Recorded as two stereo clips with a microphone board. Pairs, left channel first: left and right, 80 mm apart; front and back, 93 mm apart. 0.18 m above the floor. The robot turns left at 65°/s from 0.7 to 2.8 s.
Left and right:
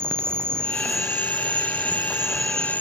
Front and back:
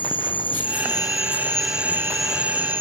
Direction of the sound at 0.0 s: 30° right.